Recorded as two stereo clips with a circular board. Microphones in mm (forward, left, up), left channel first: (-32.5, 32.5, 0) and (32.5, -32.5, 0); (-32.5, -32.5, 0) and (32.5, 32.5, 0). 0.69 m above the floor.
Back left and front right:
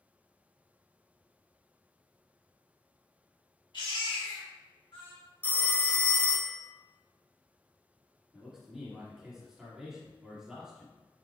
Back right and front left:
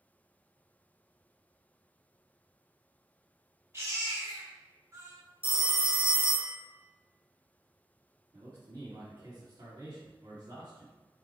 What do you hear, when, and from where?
3.7 s a baby crying: 105° left, 1.1 m
5.4 s a phone ringing: 60° left, 0.6 m
8.3 s a man speaking: 40° left, 1.4 m